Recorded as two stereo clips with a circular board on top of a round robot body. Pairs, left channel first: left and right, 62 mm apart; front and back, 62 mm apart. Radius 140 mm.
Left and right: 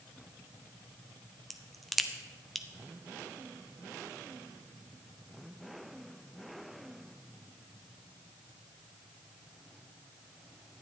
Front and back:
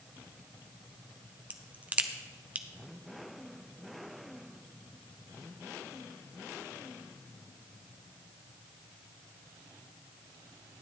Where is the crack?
175° left, 1.1 m.